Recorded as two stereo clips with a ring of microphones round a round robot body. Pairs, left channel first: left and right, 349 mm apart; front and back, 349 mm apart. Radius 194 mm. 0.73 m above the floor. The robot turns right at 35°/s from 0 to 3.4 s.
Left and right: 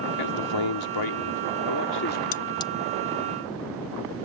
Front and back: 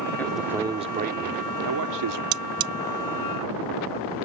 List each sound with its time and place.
0.2 s a man speaking: 85° left; by 2.2 s 155° left
2.3 s cutlery clinking: 160° left; by 2.7 s 175° left